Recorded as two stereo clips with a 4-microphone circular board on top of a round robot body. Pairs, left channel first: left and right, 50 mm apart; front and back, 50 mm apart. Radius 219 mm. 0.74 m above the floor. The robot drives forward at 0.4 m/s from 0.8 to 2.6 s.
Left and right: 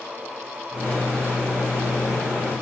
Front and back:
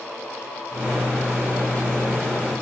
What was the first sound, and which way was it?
Only background noise.